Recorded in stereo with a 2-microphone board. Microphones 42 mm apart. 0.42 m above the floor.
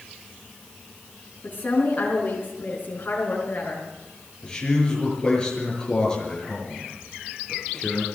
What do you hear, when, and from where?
1.4 s a woman speaking: 50° left (ahead or behind), 3.5 m
4.4 s a man speaking: 20° left (ahead or behind), 6.5 m